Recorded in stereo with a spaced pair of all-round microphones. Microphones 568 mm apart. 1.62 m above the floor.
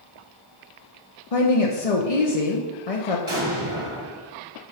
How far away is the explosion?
About 1.6 m.